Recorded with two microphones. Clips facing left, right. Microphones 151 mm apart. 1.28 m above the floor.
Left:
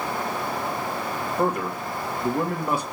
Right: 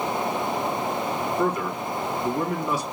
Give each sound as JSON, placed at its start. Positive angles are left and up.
{"t": 1.4, "sound": "a man speaking", "side_deg": 55, "distance_m": 2.0}